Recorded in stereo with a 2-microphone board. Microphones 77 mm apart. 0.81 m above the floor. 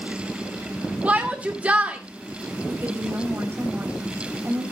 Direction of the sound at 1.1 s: 20° right (ahead or behind).